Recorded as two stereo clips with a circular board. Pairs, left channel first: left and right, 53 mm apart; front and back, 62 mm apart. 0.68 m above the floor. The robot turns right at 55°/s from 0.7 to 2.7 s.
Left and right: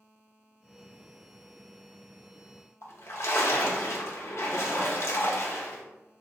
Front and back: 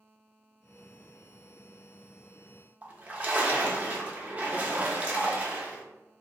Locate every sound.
2.8 s a splash: 115° left, 0.6 m